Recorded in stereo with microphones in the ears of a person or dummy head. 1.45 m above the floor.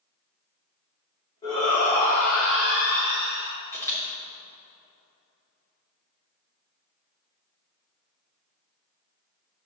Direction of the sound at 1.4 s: 30° left (ahead or behind).